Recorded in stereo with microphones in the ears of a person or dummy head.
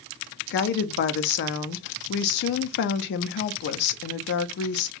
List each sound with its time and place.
0.5 s a woman speaking: 60° left (ahead or behind), 0.5 m